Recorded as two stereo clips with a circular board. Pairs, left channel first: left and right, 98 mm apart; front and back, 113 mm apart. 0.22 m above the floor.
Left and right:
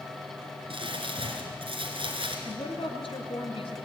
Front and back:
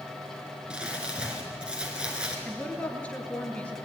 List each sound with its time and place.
0.7 s crumpling: 100° right, 3.5 m
2.5 s a woman speaking: 80° left, 3 m